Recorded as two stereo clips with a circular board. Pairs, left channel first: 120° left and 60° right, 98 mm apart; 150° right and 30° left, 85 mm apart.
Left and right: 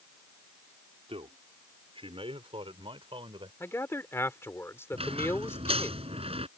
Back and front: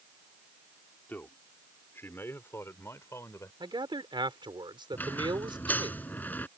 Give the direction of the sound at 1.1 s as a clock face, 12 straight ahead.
3 o'clock.